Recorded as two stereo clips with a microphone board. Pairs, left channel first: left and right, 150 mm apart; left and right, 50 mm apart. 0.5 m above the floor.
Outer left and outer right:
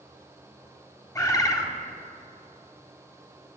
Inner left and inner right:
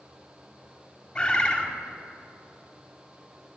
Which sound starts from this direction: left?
A bird, at 1.1 s.